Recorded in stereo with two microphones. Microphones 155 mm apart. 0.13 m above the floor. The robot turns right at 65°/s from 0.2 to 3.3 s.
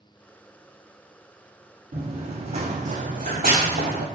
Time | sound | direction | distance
1.9 | running footsteps | 55° right (ahead or behind) | 0.8 m